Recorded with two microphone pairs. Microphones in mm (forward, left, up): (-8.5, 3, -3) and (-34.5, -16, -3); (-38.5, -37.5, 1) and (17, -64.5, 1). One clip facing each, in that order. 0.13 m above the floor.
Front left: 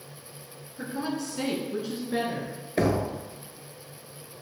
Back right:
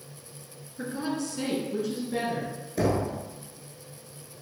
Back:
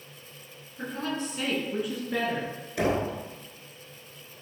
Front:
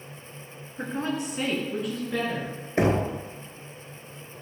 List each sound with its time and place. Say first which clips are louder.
0.8 s a woman speaking: even, front 3 dB; 60° right, 1.4 m; by 2.5 s 90° left, 1.8 m
2.8 s knocking: front left 1 dB, front 3 dB; 5° left, 1.0 m